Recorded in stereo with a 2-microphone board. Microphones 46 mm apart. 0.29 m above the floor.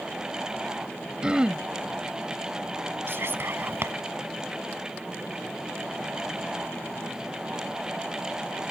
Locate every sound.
1.2 s throat clearing: 20° right (ahead or behind)
3.1 s whispering: 55° right (ahead or behind)